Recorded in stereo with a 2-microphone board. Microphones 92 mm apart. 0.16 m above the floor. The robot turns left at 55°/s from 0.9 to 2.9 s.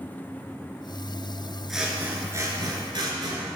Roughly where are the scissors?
Ahead.